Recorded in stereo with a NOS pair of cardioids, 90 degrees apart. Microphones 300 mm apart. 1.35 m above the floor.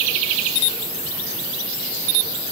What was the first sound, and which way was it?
Only background noise.